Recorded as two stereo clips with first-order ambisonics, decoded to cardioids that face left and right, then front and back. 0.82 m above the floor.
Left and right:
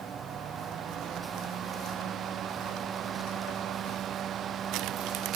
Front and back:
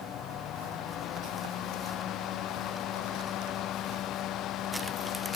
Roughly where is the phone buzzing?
I don't hear a phone buzzing.